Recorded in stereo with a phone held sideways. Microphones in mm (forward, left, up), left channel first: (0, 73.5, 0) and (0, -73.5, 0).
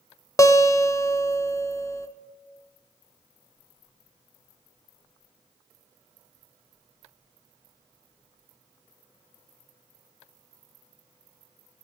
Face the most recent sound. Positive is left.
turn(degrees=25)  # may be behind; listen again after turning